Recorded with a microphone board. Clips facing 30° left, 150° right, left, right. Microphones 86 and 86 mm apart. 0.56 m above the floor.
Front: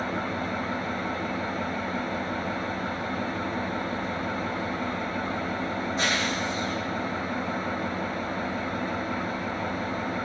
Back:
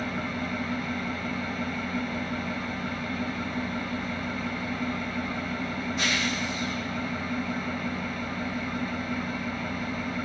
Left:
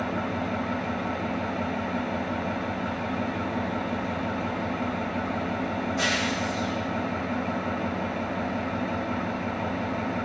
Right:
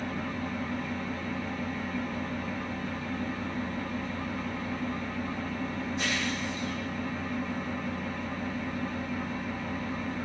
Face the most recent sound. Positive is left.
turn(degrees=85)